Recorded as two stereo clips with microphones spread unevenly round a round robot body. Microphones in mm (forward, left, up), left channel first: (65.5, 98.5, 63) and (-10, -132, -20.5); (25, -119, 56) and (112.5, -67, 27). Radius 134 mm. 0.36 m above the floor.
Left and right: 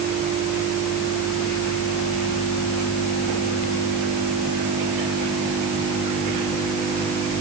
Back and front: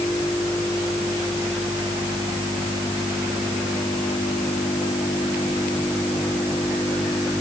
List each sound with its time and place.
Only background noise.